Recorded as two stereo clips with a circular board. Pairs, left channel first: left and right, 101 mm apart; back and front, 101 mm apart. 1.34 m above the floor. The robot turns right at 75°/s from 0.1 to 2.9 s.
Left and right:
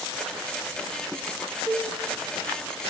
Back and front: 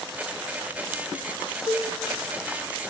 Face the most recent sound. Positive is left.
turn(degrees=-60)